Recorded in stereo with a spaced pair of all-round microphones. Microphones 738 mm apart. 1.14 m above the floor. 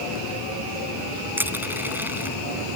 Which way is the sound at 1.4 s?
5° right (ahead or behind).